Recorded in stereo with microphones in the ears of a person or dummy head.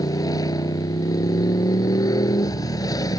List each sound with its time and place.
0.0 s a motorcycle: 20° left (ahead or behind)